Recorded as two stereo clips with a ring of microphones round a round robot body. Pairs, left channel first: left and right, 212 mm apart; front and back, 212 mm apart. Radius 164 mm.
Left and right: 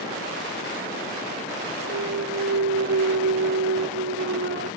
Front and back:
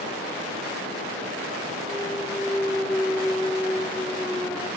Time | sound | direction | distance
1.9 | a clunk | 85° right | ?